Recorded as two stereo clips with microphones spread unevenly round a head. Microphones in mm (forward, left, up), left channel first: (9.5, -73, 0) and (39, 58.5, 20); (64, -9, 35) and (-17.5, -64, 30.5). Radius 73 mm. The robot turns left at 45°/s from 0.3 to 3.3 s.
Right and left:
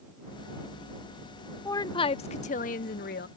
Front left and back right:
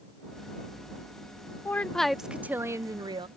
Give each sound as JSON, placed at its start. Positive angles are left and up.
{"t": 1.6, "sound": "a woman speaking", "azimuth_deg": -35}